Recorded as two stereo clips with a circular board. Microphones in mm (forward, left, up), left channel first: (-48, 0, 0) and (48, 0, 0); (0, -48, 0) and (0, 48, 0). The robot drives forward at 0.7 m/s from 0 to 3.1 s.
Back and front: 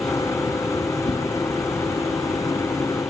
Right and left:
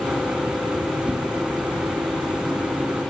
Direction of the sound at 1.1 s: 170° left.